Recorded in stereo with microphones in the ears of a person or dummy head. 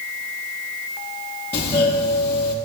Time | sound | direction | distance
1.5 | a doorbell | 15° left (ahead or behind) | 3.5 m